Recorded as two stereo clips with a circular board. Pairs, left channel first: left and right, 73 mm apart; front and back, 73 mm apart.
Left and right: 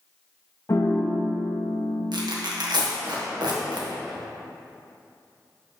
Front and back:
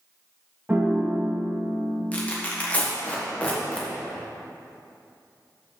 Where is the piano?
120° left, 1.0 m.